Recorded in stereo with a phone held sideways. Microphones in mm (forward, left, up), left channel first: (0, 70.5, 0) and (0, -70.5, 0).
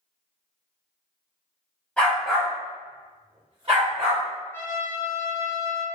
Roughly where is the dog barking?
Centre.